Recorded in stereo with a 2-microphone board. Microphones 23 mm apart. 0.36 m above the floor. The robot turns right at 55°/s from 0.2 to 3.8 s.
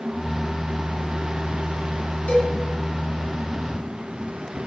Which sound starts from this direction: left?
A cowbell, at 2.3 s.